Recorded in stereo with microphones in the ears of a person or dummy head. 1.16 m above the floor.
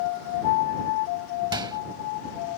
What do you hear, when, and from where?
1.5 s a microwave: 25° right (ahead or behind)